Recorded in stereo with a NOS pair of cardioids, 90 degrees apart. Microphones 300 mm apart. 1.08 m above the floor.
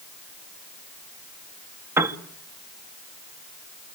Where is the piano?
10° right, 2 m.